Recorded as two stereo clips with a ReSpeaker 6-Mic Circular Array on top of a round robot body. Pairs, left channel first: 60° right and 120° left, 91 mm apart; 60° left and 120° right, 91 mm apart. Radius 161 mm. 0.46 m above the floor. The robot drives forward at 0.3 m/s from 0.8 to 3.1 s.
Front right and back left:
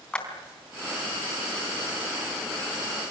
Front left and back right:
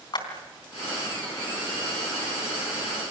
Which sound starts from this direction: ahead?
A clap, at 0.1 s.